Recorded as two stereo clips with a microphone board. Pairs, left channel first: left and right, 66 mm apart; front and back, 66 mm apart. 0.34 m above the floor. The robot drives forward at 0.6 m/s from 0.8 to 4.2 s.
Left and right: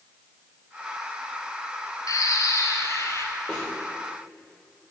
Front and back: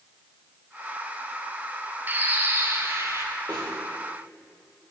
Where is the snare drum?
165° left, 7 m.